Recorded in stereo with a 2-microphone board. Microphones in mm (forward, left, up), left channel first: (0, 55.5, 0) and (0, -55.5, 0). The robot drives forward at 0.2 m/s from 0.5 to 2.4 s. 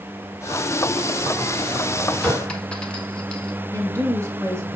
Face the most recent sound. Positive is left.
turn(degrees=-30)  # may be behind; listen again after turning